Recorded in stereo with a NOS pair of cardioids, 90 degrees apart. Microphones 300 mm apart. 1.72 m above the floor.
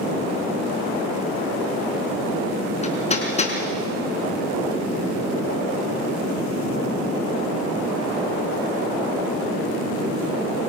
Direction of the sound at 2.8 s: 25° left.